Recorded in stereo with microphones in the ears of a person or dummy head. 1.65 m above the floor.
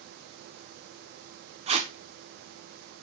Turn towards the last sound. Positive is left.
turn(degrees=-35)  # may be behind; listen again after turning